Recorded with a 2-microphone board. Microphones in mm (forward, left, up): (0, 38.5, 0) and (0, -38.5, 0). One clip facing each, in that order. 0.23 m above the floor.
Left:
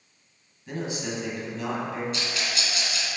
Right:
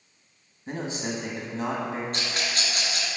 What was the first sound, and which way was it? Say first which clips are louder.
A man speaking: even; 35° right (ahead or behind).